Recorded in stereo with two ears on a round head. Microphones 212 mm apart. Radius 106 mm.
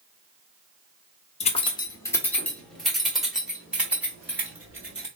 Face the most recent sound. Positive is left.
turn(degrees=-10)  # may be behind; listen again after turning